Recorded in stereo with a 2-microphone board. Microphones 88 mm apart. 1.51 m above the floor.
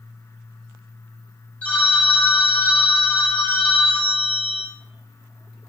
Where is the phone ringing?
15° left (ahead or behind), 0.5 m.